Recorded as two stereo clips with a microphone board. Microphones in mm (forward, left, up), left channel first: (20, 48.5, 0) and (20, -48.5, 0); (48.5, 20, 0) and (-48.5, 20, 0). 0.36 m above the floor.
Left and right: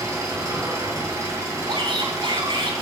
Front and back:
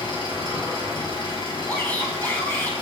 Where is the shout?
70° right, 2.5 m.